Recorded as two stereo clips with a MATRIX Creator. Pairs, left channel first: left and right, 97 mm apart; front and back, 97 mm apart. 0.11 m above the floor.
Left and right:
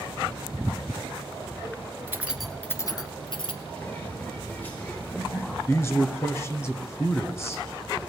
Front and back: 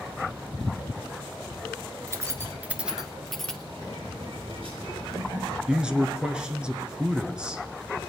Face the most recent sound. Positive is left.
turn(degrees=110)